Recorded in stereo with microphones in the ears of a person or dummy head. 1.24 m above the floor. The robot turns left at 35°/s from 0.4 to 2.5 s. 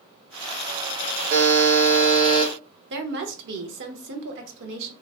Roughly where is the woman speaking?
Right.